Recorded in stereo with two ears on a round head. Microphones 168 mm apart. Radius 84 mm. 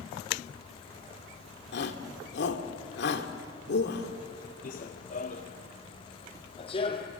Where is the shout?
65° left (ahead or behind), 2 m.